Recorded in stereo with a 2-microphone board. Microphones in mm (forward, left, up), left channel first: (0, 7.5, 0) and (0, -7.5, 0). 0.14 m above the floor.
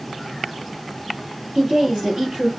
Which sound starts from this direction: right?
A woman speaking, at 1.6 s.